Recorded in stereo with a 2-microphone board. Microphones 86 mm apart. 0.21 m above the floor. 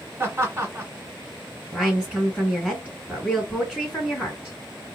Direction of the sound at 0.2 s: 25° right (ahead or behind).